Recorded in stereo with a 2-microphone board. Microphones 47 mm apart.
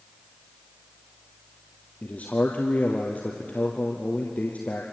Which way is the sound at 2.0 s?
30° left (ahead or behind).